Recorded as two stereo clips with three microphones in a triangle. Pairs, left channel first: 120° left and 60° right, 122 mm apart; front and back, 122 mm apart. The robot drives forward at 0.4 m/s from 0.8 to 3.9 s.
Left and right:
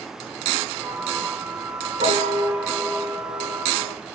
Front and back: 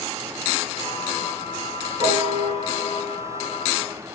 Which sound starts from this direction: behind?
A piano, at 2.0 s.